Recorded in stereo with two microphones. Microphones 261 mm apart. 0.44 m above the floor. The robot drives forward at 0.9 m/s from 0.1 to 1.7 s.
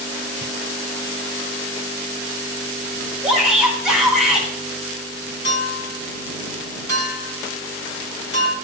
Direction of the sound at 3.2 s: Centre (ahead or behind).